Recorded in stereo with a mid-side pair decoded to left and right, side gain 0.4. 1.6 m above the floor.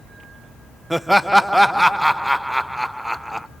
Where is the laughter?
5° right, 0.7 m.